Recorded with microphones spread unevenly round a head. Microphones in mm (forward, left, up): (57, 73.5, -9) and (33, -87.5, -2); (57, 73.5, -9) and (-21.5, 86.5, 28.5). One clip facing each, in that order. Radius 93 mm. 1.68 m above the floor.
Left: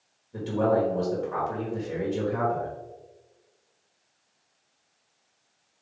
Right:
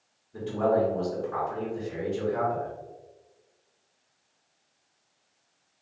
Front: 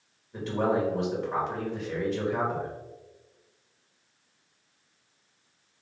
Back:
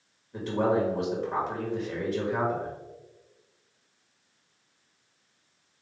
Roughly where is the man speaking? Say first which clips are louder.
Left 1 dB, back 1 dB; left.